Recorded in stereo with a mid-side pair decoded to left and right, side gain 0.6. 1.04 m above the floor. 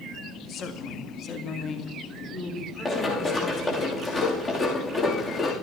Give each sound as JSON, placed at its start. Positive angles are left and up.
{"t": 0.5, "sound": "a woman speaking", "azimuth_deg": 55, "distance_m": 1.8}
{"t": 2.9, "sound": "running footsteps", "azimuth_deg": 30, "distance_m": 5.5}